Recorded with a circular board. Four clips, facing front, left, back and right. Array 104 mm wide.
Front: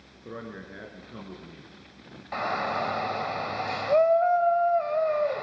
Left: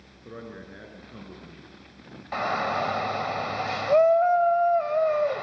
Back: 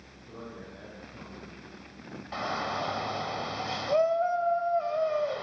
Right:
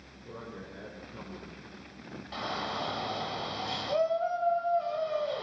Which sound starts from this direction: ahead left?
A man speaking, at 0.2 s.